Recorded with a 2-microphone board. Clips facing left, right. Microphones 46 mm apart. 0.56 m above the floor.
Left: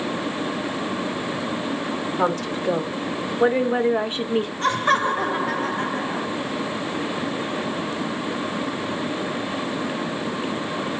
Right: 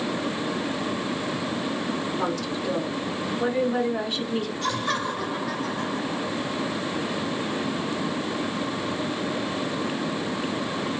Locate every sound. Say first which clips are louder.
2.2 s a woman speaking: left 4 dB; 40° left (ahead or behind), 1.9 m; by 4.5 s 25° left (ahead or behind), 1.0 m
4.6 s laughter: left 9 dB; 35° left (ahead or behind), 0.9 m